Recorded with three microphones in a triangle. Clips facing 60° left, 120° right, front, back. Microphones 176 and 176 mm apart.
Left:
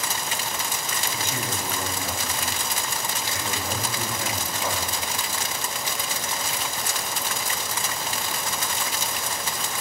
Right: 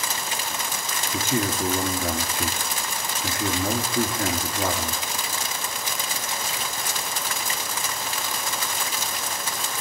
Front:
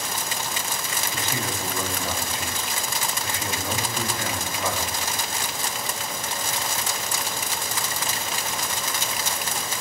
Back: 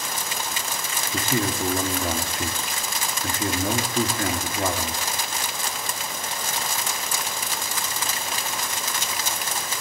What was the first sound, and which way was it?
A man speaking, 140° right.